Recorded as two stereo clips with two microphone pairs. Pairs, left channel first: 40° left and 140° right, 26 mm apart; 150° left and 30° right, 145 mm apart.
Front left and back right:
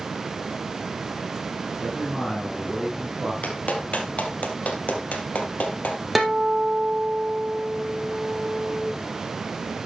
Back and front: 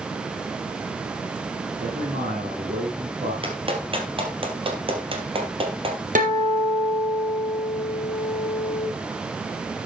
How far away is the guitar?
About 3 m.